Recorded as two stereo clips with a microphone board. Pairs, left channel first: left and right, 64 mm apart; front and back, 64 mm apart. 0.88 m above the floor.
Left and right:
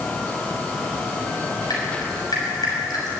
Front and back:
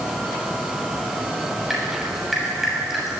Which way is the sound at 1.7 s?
95° left.